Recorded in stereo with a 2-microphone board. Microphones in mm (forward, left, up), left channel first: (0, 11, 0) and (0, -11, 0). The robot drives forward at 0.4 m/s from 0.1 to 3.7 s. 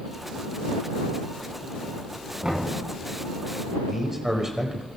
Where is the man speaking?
15° right (ahead or behind), 1.4 m.